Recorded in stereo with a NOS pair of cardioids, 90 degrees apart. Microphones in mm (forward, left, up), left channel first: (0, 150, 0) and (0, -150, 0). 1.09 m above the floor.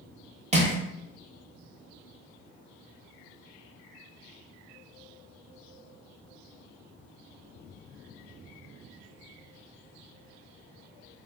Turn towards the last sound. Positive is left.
turn(degrees=-20)